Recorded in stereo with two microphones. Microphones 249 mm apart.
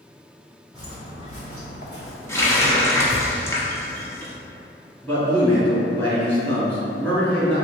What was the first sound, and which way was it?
Footsteps, 15° left (ahead or behind).